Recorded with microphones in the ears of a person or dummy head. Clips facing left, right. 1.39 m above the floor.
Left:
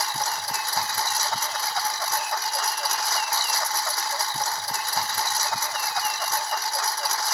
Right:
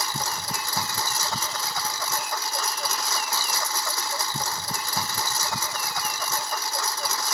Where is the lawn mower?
75° right (ahead or behind).